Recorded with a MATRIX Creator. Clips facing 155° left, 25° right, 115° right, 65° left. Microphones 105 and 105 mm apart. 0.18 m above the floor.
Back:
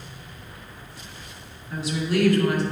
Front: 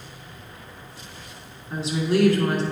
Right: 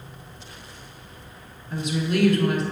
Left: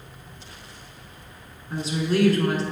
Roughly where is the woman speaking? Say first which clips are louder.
Front 2 dB, left 1 dB; ahead left.